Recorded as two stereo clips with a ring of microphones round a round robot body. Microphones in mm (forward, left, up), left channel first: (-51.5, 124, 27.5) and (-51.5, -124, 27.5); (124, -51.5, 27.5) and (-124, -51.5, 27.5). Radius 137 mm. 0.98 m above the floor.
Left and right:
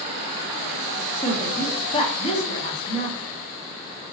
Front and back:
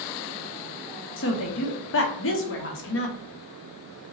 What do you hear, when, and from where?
1.2 s a woman speaking: 25° left, 0.8 m